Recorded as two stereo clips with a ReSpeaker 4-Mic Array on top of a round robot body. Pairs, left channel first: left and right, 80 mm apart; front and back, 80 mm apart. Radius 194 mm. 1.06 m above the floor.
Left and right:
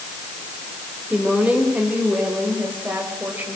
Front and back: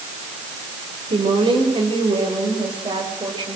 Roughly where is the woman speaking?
Behind.